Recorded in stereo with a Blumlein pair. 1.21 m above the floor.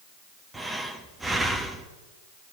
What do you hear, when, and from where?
0.5 s breathing: 5° right, 1.4 m